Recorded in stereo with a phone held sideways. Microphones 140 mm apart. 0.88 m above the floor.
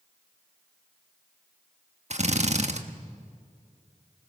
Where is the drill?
50° right (ahead or behind), 1.3 m.